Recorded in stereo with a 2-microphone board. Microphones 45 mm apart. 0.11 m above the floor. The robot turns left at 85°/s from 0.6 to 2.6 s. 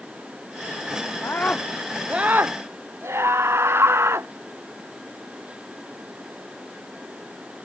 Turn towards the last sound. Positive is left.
turn(degrees=-65)